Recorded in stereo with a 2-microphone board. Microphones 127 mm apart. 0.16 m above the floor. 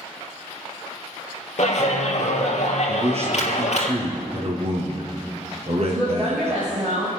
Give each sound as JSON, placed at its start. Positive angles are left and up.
{"t": 1.6, "sound": "a clap", "side_deg": 60, "distance_m": 3.0}
{"t": 2.9, "sound": "a man speaking", "side_deg": -55, "distance_m": 4.0}
{"t": 5.8, "sound": "a woman speaking", "side_deg": -15, "distance_m": 6.5}